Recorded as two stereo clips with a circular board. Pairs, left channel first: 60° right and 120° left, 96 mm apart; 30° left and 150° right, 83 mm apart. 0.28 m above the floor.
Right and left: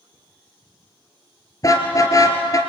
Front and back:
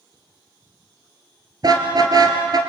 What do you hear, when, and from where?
1.6 s a car horn: 110° right, 3 m